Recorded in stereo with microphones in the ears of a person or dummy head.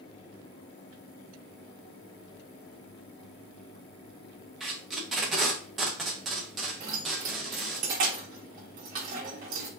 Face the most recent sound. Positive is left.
turn(degrees=-20)  # may be behind; listen again after turning